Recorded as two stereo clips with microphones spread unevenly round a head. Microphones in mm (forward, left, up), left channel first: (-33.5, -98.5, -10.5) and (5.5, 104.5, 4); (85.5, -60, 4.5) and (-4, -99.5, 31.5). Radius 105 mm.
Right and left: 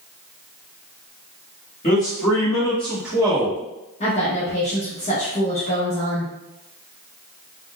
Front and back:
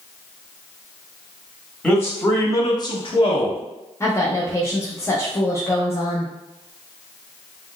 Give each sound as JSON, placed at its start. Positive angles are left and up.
{"t": 1.8, "sound": "a man speaking", "azimuth_deg": -45, "distance_m": 1.6}
{"t": 4.0, "sound": "a woman speaking", "azimuth_deg": -40, "distance_m": 0.7}